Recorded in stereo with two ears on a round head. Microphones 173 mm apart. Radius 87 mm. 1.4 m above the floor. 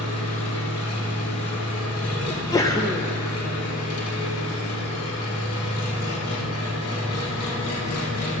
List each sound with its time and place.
0.0 s an engine running: 85° left, 1.5 m
2.3 s a sneeze: 15° left (ahead or behind), 0.5 m